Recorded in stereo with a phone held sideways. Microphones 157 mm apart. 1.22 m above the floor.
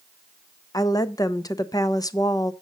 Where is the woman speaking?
25° left (ahead or behind), 0.6 m.